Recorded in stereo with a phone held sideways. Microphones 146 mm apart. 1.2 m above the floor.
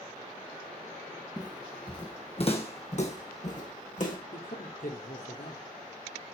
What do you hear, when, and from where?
1.4 s footsteps: 25° left (ahead or behind), 2 m; by 4.2 s 60° left (ahead or behind), 3.5 m
4.3 s a man speaking: 70° left (ahead or behind), 2.5 m